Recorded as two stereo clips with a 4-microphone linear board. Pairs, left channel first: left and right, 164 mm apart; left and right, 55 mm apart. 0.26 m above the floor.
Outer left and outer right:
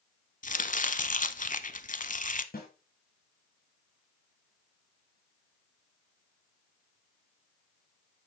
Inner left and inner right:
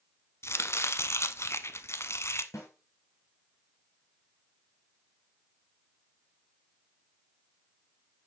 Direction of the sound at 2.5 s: 70° left (ahead or behind).